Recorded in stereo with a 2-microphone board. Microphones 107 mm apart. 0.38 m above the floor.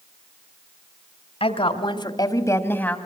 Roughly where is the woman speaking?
Left.